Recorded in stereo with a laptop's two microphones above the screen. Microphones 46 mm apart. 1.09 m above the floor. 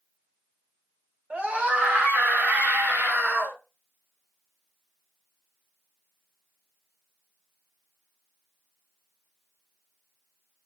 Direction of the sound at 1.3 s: 30° right (ahead or behind).